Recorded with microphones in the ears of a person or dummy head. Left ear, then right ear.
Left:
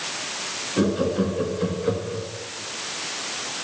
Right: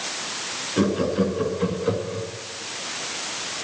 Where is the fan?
No fan in this recording.